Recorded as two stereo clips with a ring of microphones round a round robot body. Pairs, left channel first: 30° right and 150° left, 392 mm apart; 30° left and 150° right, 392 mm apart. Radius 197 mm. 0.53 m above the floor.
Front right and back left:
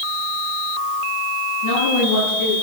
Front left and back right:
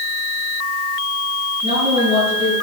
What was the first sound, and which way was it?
A woman speaking, 75° right.